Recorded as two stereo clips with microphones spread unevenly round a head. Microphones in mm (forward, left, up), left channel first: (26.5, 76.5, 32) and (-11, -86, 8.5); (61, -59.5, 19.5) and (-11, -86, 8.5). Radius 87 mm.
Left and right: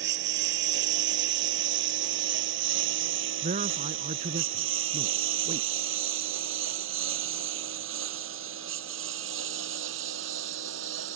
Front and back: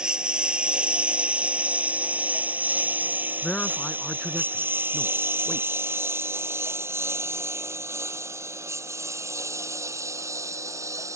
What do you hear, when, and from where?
0.0 s a lawn mower: 80° right; by 11.2 s 110° right
3.4 s a man speaking: 55° right